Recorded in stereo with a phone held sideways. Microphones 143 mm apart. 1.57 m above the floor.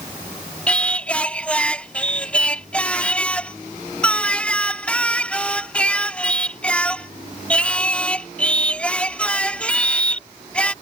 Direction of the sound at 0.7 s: 10° left (ahead or behind).